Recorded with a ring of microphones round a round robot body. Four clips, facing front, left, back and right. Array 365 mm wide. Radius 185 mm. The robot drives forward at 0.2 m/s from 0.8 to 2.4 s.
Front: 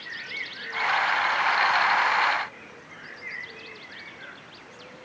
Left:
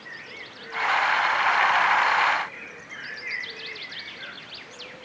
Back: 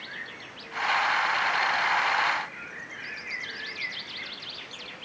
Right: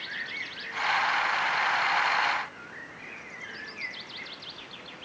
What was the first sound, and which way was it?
Only background noise.